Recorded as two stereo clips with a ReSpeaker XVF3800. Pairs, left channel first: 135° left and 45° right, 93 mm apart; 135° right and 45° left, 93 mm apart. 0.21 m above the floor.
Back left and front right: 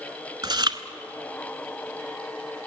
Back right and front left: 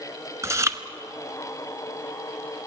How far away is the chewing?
About 1.0 m.